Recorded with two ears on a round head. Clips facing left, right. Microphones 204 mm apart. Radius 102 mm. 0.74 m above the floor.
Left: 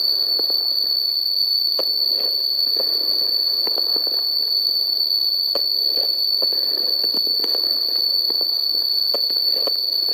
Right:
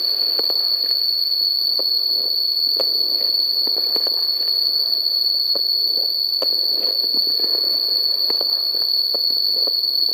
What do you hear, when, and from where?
0.0 s an insect: 45° left (ahead or behind), 4.5 m